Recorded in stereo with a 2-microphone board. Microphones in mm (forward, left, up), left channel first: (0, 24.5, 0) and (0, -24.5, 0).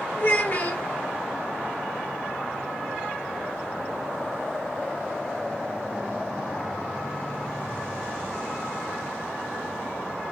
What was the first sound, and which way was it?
A child speaking, 40° left (ahead or behind).